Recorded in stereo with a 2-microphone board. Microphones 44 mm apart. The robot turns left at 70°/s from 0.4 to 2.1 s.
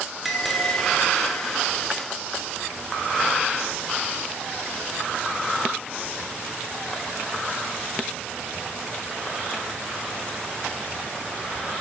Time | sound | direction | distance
0.2 | a bell | 175° right | 0.6 m